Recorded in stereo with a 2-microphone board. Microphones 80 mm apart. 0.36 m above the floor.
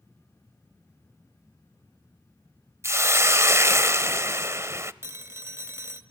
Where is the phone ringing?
30° right (ahead or behind), 1.4 m.